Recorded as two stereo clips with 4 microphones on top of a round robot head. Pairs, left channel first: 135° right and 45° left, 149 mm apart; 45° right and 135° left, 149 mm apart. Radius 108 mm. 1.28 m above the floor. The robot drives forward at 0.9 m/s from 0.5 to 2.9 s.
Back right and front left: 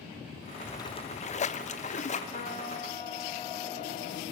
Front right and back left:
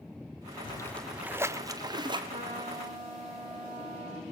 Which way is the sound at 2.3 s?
Straight behind.